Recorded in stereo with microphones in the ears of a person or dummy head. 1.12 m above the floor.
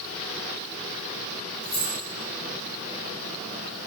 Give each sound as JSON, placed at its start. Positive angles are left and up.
{"t": 1.6, "sound": "keys jangling", "side_deg": 10, "distance_m": 2.5}